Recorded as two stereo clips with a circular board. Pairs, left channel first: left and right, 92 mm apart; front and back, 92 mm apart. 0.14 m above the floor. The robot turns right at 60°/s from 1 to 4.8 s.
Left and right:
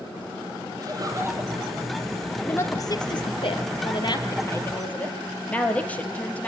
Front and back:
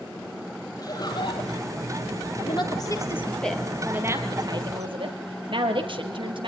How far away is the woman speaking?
About 3 m.